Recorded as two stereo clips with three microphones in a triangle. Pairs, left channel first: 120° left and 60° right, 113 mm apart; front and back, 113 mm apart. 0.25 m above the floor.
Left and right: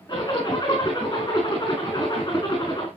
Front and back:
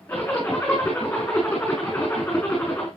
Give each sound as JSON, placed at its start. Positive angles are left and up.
{"t": 0.1, "sound": "a zipper", "azimuth_deg": 75, "distance_m": 4.5}